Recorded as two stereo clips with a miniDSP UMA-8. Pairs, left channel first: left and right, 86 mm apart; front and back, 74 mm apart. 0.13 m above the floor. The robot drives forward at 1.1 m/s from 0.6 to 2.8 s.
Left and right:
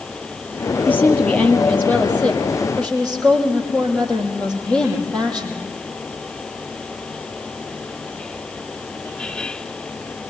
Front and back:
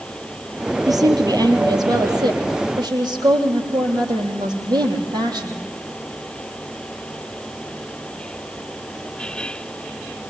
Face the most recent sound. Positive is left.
turn(degrees=165)